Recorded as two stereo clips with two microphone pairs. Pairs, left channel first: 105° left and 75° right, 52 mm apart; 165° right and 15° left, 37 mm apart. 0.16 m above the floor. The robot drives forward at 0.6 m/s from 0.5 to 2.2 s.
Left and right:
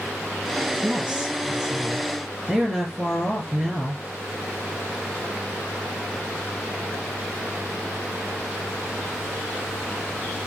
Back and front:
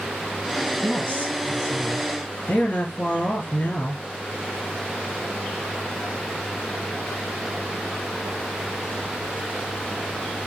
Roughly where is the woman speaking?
Behind right.